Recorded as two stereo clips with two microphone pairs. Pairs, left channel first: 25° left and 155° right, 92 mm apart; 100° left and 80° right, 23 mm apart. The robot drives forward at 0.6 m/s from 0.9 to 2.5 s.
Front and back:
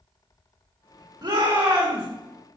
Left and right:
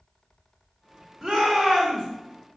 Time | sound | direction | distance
1.2 | a shout | 135° right | 3 m